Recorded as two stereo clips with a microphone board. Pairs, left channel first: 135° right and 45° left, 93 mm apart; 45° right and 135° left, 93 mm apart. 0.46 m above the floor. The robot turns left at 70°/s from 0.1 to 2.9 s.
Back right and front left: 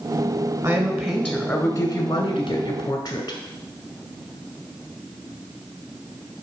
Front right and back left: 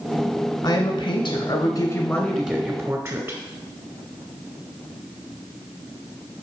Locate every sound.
0.6 s a woman speaking: 15° right, 1.8 m; by 3.4 s 170° right, 1.8 m